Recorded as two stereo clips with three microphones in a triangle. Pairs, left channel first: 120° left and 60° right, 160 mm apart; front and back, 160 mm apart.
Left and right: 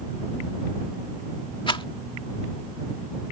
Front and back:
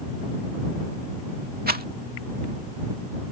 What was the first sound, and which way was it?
A rattle, 175° left.